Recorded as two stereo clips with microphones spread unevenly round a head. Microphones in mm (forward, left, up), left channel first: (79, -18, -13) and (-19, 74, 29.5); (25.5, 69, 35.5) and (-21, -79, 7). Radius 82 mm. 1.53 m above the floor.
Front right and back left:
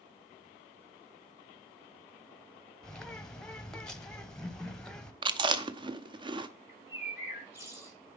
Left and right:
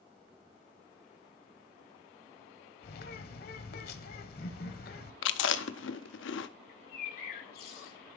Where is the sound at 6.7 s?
80° left, 1.7 m.